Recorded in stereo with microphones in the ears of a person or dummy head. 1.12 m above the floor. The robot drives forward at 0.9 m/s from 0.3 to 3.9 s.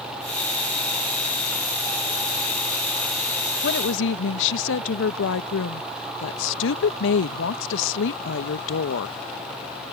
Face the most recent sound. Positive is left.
turn(degrees=70)  # may be behind; listen again after turning